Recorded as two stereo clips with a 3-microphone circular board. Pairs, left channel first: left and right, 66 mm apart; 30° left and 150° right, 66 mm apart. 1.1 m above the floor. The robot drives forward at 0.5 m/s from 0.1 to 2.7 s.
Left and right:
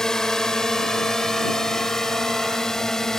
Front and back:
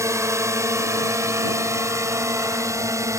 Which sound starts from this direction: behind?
A drone, at 0.0 s.